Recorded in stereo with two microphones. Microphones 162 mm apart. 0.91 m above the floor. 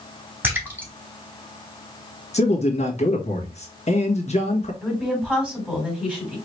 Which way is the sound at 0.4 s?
10° right (ahead or behind).